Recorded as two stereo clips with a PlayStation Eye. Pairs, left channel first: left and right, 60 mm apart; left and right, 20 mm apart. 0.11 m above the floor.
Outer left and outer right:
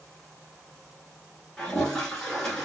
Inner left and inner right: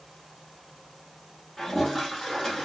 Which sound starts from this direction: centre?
A toilet flushing, at 1.6 s.